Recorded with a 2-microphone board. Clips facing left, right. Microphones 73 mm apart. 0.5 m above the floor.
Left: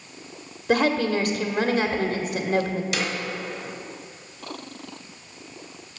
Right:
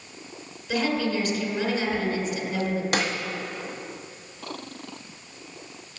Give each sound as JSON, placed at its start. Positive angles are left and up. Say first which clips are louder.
{"t": 0.7, "sound": "a woman speaking", "louder": "left 4 dB", "side_deg": 55, "distance_m": 1.4}
{"t": 2.9, "sound": "a snare drum", "louder": "right 4 dB", "side_deg": -50, "distance_m": 1.1}